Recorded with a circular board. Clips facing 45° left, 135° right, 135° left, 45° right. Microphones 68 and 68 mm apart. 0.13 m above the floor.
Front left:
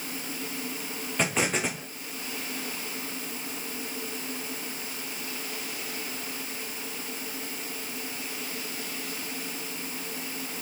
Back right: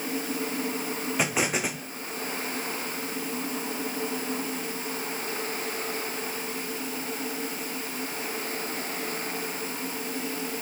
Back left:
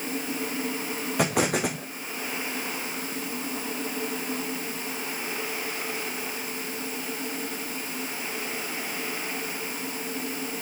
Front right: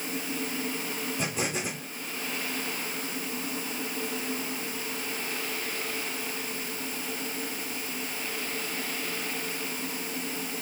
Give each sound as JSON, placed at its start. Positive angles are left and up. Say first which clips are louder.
{"t": 1.2, "sound": "an explosion", "louder": "front left 1 dB, back left 9 dB", "azimuth_deg": 140, "distance_m": 2.5}